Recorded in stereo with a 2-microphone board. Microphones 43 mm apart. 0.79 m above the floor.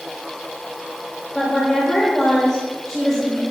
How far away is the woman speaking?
About 3 m.